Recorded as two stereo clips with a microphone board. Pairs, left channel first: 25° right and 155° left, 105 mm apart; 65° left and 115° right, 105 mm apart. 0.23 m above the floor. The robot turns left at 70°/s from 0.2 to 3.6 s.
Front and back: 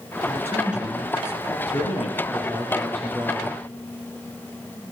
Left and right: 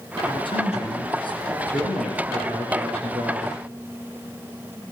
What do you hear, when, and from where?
0.2 s a man speaking: 110° left, 3.5 m; by 1.6 s 20° left, 3.5 m
1.7 s a man speaking: straight ahead, 5.5 m; by 3.6 s 135° right, 5.5 m